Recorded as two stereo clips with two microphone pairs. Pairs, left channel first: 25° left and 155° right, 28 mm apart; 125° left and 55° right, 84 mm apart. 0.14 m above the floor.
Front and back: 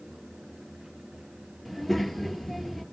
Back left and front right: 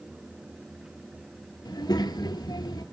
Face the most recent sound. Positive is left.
turn(degrees=100)